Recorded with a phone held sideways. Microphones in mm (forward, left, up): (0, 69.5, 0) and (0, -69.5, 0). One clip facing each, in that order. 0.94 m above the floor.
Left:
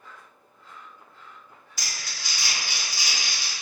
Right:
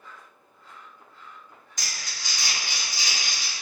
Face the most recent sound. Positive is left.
turn(degrees=10)  # may be behind; listen again after turning